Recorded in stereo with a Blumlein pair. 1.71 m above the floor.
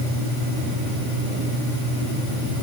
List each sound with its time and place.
Only background noise.